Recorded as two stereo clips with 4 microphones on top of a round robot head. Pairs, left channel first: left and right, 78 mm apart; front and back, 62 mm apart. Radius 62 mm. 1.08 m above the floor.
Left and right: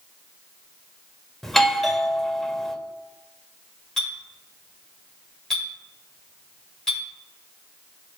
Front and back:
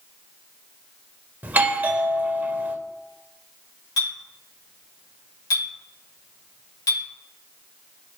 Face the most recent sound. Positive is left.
turn(degrees=5)